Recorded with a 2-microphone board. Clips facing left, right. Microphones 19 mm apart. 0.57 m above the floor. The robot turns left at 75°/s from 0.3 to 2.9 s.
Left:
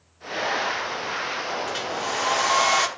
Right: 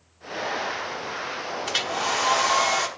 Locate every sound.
1.7 s a hair dryer: 115° right, 1.0 m; by 2.9 s 150° left, 1.0 m